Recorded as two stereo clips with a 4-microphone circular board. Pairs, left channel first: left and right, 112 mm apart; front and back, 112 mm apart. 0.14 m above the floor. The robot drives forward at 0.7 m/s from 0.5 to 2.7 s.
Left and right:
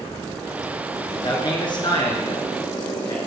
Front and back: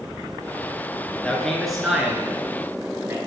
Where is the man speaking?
75° left, 1.6 m; by 3.2 s 120° left, 1.7 m.